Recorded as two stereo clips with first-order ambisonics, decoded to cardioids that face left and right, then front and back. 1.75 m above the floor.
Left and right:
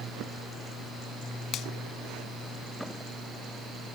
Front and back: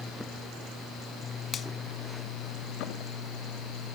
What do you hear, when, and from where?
1.5 s a finger snap: 50° left, 1.2 m